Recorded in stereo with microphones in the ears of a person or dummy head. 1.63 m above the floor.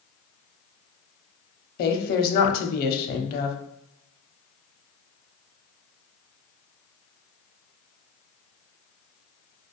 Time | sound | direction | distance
1.8 | a woman speaking | 55° left (ahead or behind) | 0.7 m